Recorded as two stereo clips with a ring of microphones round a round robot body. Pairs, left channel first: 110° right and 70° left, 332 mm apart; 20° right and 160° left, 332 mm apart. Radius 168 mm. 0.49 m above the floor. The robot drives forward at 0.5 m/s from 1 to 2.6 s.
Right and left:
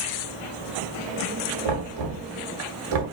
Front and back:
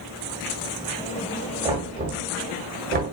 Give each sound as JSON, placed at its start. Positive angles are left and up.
{"t": 1.6, "sound": "knocking", "azimuth_deg": 80, "distance_m": 1.5}